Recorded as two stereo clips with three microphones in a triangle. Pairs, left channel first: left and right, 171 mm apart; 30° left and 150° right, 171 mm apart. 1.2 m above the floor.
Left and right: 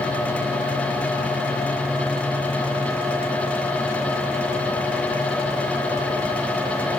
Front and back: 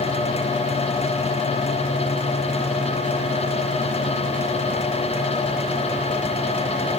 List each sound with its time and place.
Only background noise.